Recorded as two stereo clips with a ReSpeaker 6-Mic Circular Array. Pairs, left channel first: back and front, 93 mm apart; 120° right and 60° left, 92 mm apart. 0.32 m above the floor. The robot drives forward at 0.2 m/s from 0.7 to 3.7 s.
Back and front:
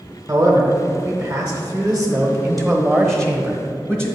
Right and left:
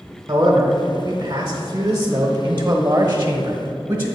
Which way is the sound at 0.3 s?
55° left.